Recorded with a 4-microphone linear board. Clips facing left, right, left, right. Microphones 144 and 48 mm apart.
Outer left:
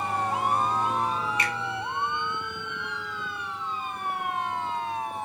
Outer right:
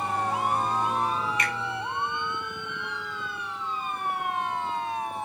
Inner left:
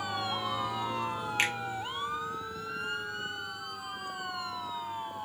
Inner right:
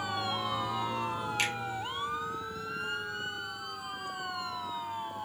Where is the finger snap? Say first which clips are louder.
Even, inner left 3 dB; 30° left (ahead or behind), 0.6 m.